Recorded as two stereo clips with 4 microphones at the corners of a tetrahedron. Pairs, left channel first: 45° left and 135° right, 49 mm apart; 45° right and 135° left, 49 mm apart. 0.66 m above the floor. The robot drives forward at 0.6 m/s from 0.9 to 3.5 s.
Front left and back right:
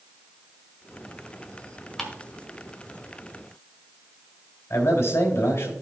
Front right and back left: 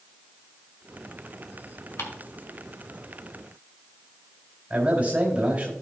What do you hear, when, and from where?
2.0 s ticking: 35° right, 1.6 m
4.7 s a man speaking: 75° left, 3.5 m